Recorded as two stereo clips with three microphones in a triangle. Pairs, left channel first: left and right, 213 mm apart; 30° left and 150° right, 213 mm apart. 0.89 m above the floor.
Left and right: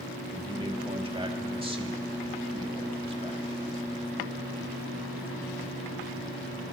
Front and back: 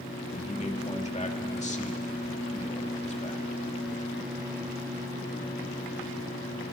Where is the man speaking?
25° right, 2.5 m.